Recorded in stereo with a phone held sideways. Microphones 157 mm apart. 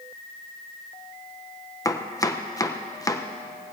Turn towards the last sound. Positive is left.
turn(degrees=20)  # may be behind; listen again after turning